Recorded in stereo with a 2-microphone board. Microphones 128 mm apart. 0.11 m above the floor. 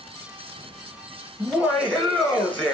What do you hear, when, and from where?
1.4 s laughter: 5° left (ahead or behind), 1.7 m